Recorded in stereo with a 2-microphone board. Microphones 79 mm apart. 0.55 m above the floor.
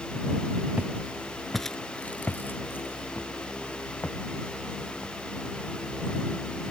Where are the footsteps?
20° right (ahead or behind); by 6.7 s 30° left (ahead or behind).